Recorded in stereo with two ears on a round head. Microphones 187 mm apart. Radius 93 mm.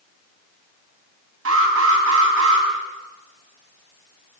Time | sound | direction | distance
1.4 | an alarm | 70° right (ahead or behind) | 7.5 m